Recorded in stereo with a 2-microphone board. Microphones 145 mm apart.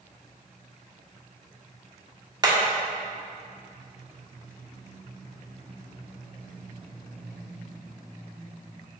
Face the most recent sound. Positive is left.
turn(degrees=-30)  # may be behind; listen again after turning